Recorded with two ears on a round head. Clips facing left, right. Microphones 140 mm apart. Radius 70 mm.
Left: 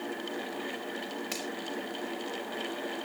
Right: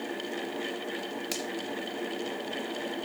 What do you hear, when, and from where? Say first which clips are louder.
1.3 s a finger snap: right 3 dB; 40° right (ahead or behind), 5 m